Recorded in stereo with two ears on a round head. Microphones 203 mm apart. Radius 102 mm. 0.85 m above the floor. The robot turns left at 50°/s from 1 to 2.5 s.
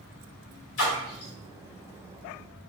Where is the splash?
60° left (ahead or behind), 1.8 m; by 1.3 s 75° left (ahead or behind), 1.8 m.